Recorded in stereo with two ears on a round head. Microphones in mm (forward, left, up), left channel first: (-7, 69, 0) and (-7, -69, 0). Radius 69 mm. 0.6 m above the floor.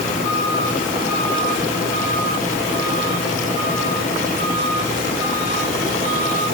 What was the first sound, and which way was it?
Only background noise.